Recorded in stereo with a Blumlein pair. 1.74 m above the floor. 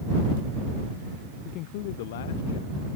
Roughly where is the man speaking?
Ahead left.